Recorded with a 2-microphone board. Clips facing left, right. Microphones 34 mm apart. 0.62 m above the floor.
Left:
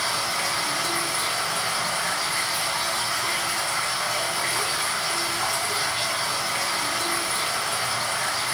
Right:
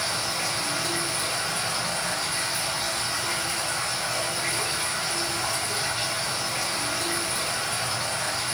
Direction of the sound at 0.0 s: 80° left.